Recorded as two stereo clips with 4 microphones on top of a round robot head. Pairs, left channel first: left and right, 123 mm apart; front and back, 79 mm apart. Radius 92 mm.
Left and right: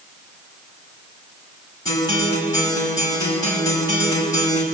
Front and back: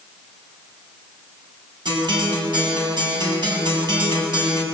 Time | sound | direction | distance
1.9 | a guitar | 155° left | 7 m